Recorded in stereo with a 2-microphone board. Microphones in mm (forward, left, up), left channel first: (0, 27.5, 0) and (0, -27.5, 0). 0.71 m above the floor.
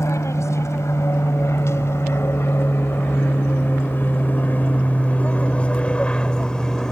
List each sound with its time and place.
0.0 s an aircraft: 65° left (ahead or behind); by 6.9 s 10° left (ahead or behind)